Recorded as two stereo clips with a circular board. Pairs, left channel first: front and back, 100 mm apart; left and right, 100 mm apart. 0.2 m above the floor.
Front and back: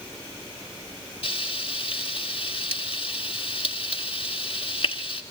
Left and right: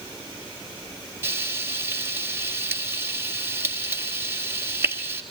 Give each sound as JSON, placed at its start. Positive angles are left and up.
{"t": 1.2, "sound": "frying", "azimuth_deg": -25, "distance_m": 1.4}